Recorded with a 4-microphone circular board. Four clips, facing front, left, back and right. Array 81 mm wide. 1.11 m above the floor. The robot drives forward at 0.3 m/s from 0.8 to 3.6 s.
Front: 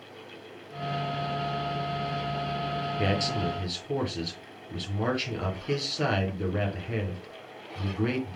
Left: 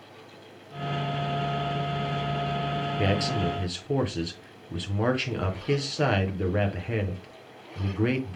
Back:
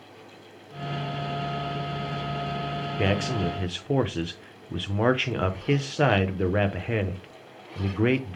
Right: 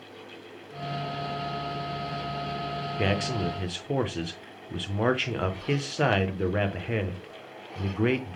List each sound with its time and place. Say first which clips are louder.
3.0 s a man speaking: even, back 4 dB; 155° right, 0.7 m; by 8.4 s 165° right, 0.8 m